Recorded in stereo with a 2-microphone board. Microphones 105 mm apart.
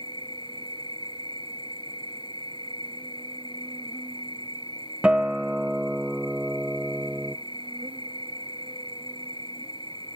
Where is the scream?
No scream in this recording.